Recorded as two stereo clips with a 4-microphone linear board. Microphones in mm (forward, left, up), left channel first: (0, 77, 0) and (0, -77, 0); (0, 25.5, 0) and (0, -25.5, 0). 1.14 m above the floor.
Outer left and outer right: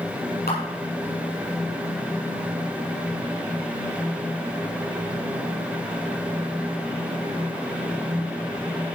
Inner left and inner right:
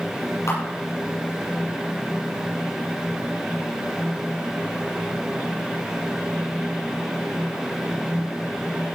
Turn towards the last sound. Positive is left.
turn(degrees=80)